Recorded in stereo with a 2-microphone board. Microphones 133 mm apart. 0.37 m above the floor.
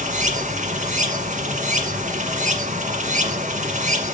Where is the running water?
70° right (ahead or behind), 1.7 m.